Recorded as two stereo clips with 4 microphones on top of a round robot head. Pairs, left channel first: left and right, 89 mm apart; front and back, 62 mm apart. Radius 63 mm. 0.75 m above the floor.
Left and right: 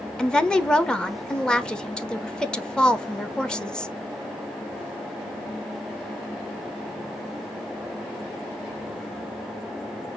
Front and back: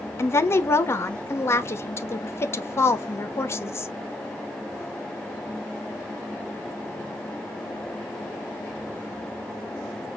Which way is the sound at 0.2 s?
10° left.